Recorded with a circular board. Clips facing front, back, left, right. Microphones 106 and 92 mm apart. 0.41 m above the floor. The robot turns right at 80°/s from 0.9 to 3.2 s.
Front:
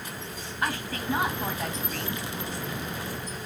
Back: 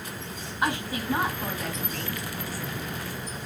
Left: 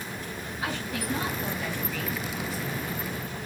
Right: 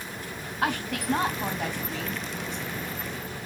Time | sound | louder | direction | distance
0.6 | a woman speaking | back 2 dB, right 5 dB | 110° right | 3.5 m